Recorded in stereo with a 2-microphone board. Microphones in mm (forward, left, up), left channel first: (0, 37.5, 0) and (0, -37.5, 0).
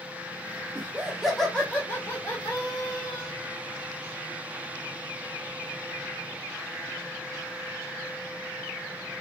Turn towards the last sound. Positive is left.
turn(degrees=55)  # may be behind; listen again after turning